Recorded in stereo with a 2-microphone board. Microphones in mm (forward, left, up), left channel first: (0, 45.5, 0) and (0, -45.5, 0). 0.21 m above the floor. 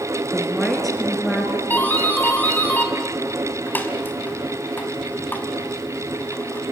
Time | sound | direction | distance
0.3 | a woman speaking | centre (ahead or behind) | 2.5 m
1.7 | a doorbell | 20° left (ahead or behind) | 2 m